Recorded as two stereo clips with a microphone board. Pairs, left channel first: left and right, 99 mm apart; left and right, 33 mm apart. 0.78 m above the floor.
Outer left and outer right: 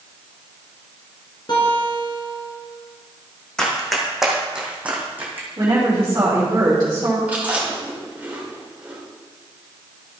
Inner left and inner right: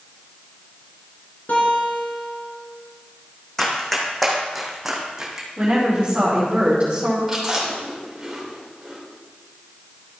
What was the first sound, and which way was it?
A guitar, 50° left (ahead or behind).